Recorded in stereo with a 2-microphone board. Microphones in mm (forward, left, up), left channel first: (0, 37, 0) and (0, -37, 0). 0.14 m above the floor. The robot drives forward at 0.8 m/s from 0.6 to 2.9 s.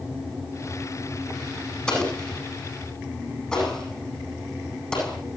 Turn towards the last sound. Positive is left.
turn(degrees=10)  # may be behind; listen again after turning